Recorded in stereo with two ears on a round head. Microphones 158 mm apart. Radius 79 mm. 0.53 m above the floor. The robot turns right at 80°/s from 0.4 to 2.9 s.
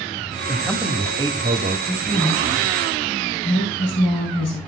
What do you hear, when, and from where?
0.5 s a man speaking: 160° left, 0.9 m; by 1.8 s 95° right, 0.9 m
1.9 s a woman speaking: 10° right, 4.5 m; by 4.6 s 75° left, 4.5 m